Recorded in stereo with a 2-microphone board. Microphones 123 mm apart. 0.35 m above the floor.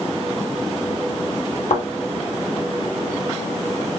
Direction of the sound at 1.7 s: 85° left.